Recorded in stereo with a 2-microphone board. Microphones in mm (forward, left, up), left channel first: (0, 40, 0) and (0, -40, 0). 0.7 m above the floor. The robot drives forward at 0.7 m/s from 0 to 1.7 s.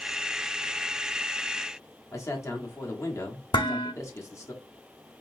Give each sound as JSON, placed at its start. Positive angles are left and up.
{"t": 2.1, "sound": "a man speaking", "side_deg": 40, "distance_m": 1.5}
{"t": 3.5, "sound": "dishes clattering", "side_deg": 75, "distance_m": 0.7}